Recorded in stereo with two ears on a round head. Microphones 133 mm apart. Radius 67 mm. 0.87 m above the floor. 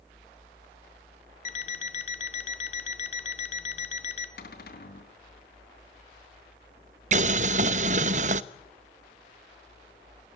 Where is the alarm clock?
50° left (ahead or behind), 1.8 m.